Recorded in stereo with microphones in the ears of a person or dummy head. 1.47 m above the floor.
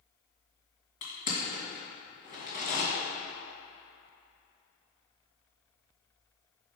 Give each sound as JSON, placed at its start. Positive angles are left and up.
{"t": 1.0, "sound": "crushing", "side_deg": 50, "distance_m": 2.0}